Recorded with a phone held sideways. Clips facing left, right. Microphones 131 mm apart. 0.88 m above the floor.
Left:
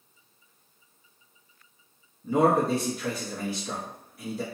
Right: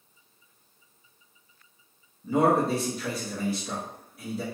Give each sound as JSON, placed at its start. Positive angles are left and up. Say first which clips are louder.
{"t": 2.2, "sound": "a man speaking", "louder": "even", "side_deg": 0, "distance_m": 0.9}